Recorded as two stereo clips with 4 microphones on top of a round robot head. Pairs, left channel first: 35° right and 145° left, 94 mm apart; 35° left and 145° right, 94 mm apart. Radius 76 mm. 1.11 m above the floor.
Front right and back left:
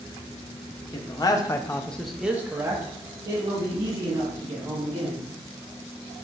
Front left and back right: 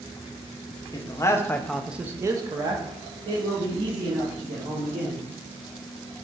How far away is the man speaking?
About 0.8 m.